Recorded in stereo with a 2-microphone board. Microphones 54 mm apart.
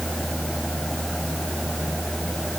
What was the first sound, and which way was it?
Only background noise.